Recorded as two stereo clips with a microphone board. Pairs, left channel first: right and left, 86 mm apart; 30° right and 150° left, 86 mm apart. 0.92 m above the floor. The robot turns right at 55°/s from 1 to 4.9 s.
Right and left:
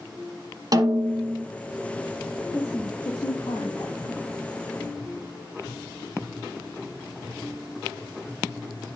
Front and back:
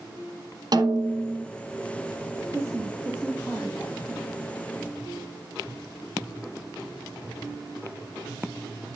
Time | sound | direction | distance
0.7 | a snare drum | 125° left | 1.6 m
2.5 | a woman speaking | 165° right | 1.8 m